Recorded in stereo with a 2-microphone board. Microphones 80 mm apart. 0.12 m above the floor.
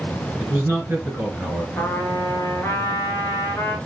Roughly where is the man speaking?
Right.